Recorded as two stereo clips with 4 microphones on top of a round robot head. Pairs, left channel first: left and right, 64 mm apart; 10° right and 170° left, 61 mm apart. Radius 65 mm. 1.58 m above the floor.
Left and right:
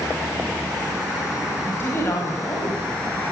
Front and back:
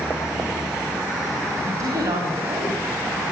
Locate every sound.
1.7 s a woman speaking: 145° left, 9.5 m